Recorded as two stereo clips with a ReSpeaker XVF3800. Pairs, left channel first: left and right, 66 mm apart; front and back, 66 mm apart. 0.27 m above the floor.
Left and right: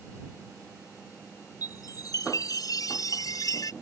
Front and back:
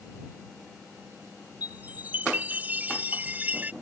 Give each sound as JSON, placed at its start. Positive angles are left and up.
{"t": 1.6, "sound": "a chime", "azimuth_deg": 115}